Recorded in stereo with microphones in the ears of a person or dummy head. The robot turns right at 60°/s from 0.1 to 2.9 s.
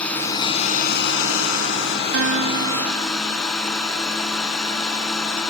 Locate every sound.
0.0 s a drone: 10° left; by 5.5 s 175° left
2.1 s a guitar: 85° right; by 3.5 s 40° right